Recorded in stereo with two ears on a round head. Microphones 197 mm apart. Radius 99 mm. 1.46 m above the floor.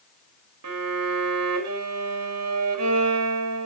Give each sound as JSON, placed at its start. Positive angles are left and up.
{"t": 0.6, "sound": "a violin", "side_deg": -85, "distance_m": 3.0}